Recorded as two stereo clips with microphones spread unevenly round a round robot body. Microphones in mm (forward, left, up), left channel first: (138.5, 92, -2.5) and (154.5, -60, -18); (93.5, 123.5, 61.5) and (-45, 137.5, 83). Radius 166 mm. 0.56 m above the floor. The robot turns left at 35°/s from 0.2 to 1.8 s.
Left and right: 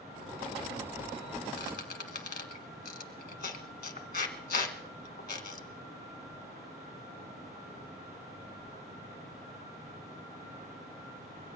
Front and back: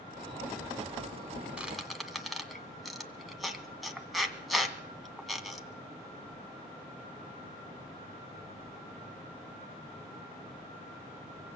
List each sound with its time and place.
1.6 s a squeak: 95° left, 1.7 m; by 5.7 s 85° left, 1.7 m